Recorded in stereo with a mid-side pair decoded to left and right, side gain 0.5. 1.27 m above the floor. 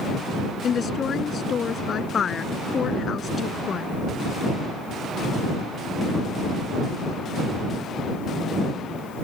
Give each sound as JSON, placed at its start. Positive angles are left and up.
{"t": 0.6, "sound": "a woman speaking", "azimuth_deg": 45}